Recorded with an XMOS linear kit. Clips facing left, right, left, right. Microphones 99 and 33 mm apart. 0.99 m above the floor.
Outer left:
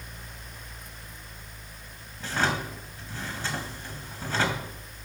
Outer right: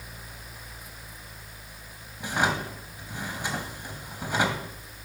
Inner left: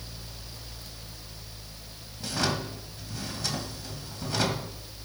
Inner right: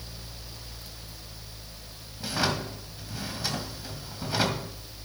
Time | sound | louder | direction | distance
2.2 | a drawer | outer right 1 dB, inner right 1 dB | 15° right (ahead or behind) | 2 m